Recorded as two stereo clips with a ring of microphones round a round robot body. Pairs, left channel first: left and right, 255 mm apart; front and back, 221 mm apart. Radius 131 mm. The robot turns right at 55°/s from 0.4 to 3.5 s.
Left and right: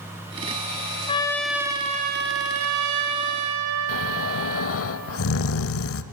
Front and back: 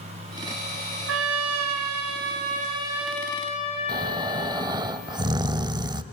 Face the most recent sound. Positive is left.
turn(degrees=110)